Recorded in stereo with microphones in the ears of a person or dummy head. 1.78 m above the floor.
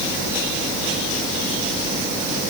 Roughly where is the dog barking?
I don't hear a dog barking.